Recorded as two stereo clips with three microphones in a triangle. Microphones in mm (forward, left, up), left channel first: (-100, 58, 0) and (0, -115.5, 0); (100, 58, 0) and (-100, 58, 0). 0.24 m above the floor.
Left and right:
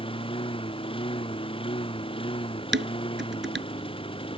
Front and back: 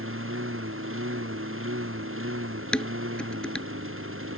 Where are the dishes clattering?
85° right.